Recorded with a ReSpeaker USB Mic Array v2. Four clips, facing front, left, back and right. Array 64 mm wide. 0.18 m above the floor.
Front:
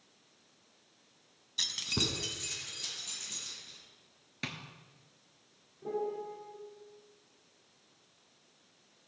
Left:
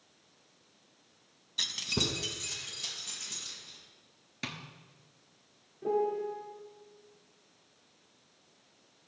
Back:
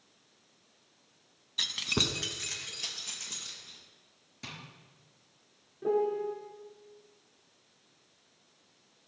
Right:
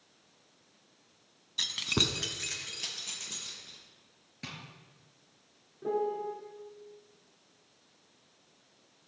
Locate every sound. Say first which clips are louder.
1.6 s keys jangling: right 2 dB, back 4 dB; 175° left, 0.7 m; by 3.8 s 125° right, 3.5 m
4.4 s tapping: left 4 dB, front 5 dB; 30° left, 1.4 m
5.8 s a piano: left 1 dB, back 7 dB; 165° right, 1.5 m